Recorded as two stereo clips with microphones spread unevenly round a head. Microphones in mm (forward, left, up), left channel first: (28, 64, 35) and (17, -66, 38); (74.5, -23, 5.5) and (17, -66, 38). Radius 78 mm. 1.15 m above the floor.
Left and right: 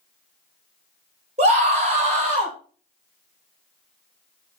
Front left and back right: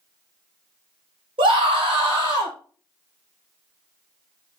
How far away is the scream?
About 2.5 m.